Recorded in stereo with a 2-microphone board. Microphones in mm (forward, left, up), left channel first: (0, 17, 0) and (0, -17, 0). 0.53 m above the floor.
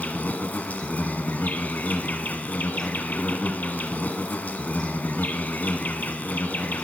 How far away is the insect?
About 1.3 m.